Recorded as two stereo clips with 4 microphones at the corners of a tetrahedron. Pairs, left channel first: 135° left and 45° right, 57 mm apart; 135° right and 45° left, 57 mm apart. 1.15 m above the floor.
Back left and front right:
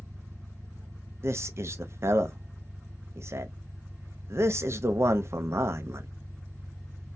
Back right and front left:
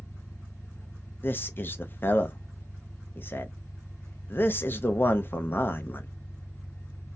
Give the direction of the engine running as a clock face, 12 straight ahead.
3 o'clock.